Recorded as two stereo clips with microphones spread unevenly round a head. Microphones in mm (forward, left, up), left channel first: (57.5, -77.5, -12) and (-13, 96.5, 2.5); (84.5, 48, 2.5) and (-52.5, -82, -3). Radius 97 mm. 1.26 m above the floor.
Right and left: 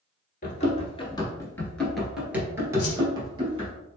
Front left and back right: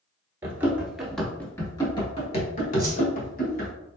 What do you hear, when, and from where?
0.4 s running footsteps: 70° right, 1.4 m; by 3.7 s 60° left, 2.0 m
2.8 s a whoosh: 65° right, 0.8 m